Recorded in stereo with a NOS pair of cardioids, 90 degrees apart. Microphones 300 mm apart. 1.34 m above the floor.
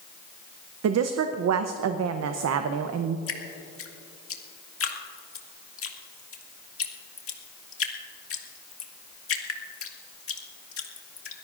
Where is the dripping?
50° left, 1.9 m.